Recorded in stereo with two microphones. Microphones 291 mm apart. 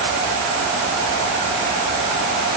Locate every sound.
Only background noise.